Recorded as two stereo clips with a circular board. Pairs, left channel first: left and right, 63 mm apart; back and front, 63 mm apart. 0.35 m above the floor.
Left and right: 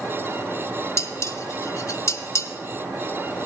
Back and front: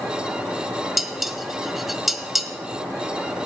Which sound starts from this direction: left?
Dishes clattering, at 1.0 s.